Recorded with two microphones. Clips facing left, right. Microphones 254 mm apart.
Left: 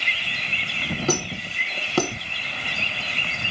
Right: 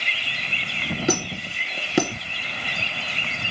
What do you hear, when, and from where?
1.1 s a squeak: 15° right (ahead or behind), 1.2 m